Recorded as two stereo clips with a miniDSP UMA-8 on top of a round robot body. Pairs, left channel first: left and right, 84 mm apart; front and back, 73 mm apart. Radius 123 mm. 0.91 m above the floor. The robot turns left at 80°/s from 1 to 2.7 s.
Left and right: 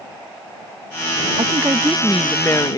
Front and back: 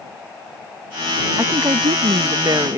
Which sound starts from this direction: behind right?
A woman speaking, at 1.4 s.